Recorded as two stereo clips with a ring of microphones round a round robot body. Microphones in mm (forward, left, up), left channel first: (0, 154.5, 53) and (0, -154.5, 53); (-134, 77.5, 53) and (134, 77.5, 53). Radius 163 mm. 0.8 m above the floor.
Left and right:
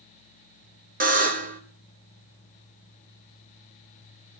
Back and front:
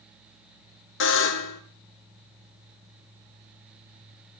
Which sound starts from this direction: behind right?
A buzzer, at 1.0 s.